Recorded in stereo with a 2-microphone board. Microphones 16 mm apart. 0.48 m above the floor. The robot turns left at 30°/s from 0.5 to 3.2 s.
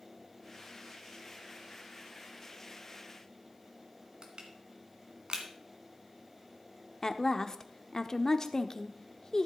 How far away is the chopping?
No chopping in this recording.